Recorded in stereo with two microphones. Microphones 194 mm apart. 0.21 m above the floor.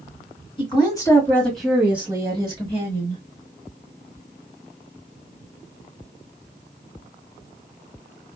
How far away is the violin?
I don't hear a violin.